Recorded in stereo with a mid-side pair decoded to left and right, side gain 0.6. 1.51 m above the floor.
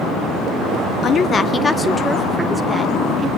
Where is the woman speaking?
45° left, 1.1 m; by 3.3 s 10° right, 2.5 m.